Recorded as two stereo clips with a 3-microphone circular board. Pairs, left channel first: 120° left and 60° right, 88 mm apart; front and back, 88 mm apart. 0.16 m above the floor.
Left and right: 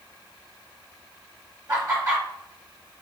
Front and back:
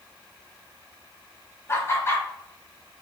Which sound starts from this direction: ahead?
Laughter, at 1.7 s.